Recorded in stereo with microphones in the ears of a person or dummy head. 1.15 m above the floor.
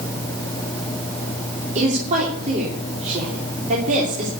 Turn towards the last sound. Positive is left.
turn(degrees=-40)  # may be behind; listen again after turning